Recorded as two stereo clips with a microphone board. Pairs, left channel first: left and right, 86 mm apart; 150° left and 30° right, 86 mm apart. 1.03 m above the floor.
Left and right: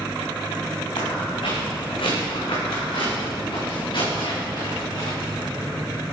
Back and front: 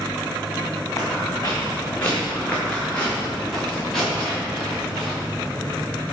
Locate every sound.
1.0 s footsteps: 95° left, 3 m; by 6.0 s 55° left, 6 m